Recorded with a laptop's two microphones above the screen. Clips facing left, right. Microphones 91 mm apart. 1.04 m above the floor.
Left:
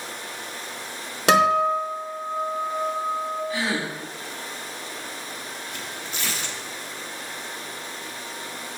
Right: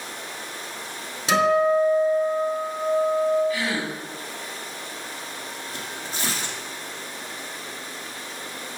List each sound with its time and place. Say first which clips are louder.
1.3 s a guitar: even; 80° left, 4 m
3.5 s a gasp: even; 30° left (ahead or behind), 3 m
5.7 s tearing paper: right 1 dB; 35° right (ahead or behind), 1.4 m